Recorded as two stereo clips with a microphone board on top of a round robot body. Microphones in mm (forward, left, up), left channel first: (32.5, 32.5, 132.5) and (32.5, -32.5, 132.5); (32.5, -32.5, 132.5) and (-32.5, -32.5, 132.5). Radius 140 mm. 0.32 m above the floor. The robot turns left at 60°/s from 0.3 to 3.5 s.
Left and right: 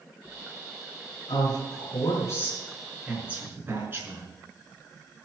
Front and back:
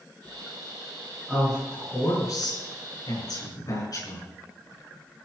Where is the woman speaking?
105° left, 6 m; by 4.2 s 30° right, 6 m.